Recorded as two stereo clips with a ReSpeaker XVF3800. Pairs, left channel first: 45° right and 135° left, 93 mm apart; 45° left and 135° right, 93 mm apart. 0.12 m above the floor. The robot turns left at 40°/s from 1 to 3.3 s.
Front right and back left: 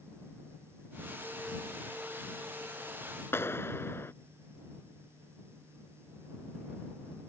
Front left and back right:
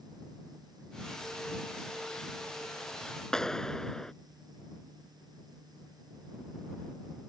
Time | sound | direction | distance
3.3 | a clap | 30° right | ?